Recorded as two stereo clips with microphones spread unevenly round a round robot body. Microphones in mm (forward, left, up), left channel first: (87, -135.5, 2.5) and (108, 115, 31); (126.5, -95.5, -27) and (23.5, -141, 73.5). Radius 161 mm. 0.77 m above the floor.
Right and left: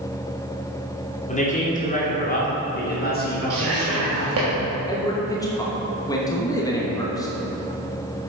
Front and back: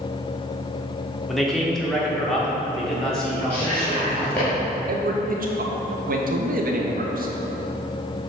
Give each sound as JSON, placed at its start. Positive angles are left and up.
{"t": 1.3, "sound": "a man speaking", "azimuth_deg": -40, "distance_m": 2.5}
{"t": 3.5, "sound": "whispering", "azimuth_deg": 65, "distance_m": 1.7}
{"t": 4.9, "sound": "a man speaking", "azimuth_deg": -135, "distance_m": 1.1}